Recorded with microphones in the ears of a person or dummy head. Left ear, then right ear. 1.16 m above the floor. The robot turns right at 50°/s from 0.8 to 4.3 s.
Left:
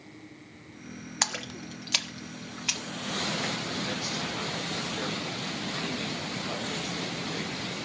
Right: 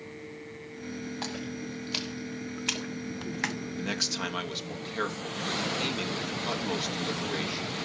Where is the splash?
55° left (ahead or behind), 0.6 m; by 3.6 s 50° right (ahead or behind), 0.6 m.